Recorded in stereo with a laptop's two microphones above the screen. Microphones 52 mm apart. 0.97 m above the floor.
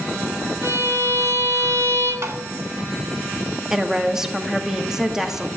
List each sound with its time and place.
0.6 s a violin: 80° right, 5.5 m
2.2 s tapping: 60° right (ahead or behind), 2 m
3.7 s a woman speaking: 10° right (ahead or behind), 2 m